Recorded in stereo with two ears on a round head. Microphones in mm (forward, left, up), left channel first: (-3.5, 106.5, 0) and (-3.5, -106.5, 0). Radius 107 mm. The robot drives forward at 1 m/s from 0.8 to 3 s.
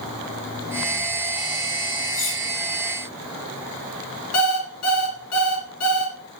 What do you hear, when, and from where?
2.1 s cutlery clinking: 85° left, 6 m
4.3 s an alarm clock: 75° left (ahead or behind), 2.5 m